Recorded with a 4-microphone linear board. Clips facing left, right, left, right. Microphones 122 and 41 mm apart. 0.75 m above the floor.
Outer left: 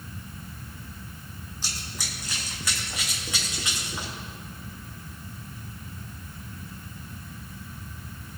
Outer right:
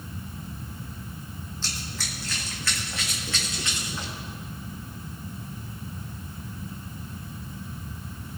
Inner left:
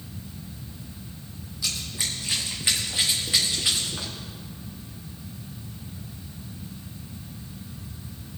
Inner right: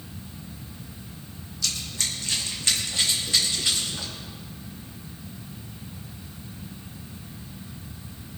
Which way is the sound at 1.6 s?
15° left (ahead or behind).